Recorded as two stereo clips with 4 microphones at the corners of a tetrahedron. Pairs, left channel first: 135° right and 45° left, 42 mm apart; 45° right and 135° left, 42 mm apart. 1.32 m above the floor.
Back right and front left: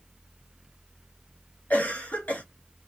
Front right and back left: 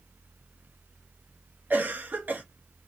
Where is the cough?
175° left, 1.3 m.